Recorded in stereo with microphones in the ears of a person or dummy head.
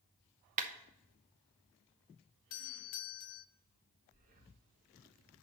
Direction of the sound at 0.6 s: 45° right (ahead or behind).